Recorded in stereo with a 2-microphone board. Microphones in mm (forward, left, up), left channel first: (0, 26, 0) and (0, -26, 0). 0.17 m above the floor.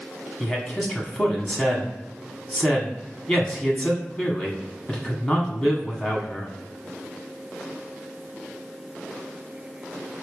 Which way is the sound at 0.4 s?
20° left (ahead or behind).